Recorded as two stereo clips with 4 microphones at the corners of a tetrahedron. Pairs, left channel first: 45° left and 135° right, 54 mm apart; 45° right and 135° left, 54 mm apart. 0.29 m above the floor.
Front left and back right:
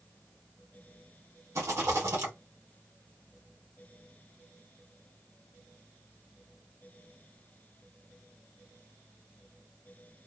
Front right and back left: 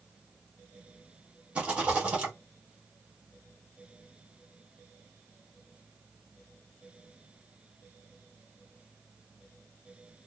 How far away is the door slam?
No door slam in this recording.